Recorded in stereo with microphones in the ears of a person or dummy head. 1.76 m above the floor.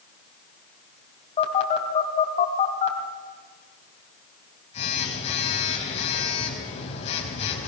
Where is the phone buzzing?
35° left (ahead or behind), 3.5 m.